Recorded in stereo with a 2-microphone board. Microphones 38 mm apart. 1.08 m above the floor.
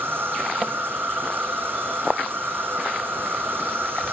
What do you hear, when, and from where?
0.0 s an insect: 80° right, 2 m